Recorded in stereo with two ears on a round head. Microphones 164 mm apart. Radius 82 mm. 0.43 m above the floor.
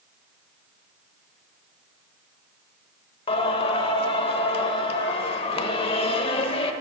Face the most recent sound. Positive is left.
turn(degrees=30)  # may be behind; listen again after turning